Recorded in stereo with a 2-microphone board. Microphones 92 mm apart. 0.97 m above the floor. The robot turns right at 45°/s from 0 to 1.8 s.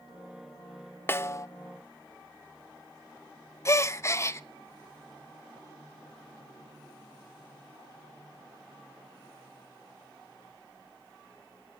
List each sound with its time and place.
1.1 s a snare drum: 25° left (ahead or behind), 0.7 m; by 1.5 s 35° left (ahead or behind), 0.7 m
3.6 s a gasp: 30° left (ahead or behind), 0.6 m